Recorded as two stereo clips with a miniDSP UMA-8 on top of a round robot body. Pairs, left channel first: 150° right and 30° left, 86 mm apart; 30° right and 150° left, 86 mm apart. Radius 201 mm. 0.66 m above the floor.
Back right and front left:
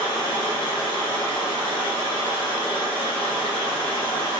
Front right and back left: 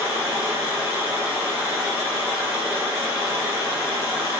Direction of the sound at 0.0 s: 150° right.